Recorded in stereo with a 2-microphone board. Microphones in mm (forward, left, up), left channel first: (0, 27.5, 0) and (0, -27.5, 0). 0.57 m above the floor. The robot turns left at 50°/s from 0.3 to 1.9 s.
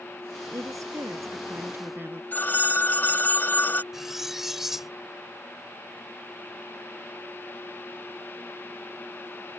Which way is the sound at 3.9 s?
5° right (ahead or behind).